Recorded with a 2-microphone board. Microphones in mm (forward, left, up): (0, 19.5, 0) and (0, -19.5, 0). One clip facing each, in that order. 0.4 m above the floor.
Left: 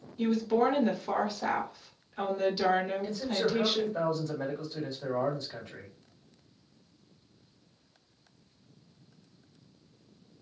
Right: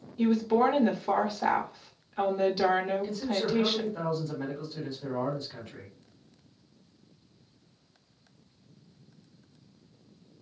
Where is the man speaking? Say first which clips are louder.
Even; 50° left (ahead or behind), 1.9 m.